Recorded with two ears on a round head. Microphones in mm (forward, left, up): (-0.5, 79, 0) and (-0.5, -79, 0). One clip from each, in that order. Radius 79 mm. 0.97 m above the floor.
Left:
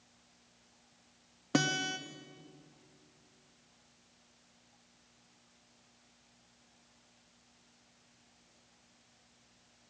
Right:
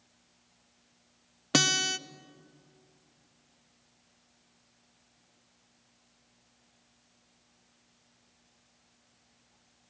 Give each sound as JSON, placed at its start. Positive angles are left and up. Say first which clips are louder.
{"t": 1.5, "sound": "a guitar", "louder": "right 6 dB", "side_deg": -70, "distance_m": 0.5}